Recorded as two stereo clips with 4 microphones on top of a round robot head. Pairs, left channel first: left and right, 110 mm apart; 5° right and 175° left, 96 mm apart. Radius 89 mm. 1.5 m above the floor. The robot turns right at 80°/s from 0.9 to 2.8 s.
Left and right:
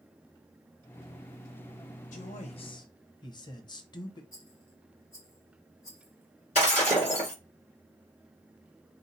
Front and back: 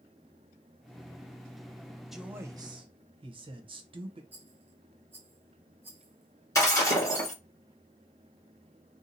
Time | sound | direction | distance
2.1 | a man speaking | 85° left | 0.9 m
4.3 | a rattle | 125° left | 0.7 m
6.5 | breaking glass | 45° left | 2.5 m